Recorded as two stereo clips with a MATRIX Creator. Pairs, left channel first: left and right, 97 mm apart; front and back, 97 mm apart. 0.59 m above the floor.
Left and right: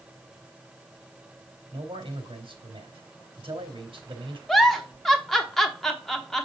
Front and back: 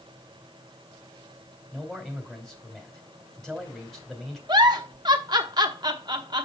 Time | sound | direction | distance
1.7 | a man speaking | 85° right | 2.5 m
4.5 | a giggle | 175° left | 0.9 m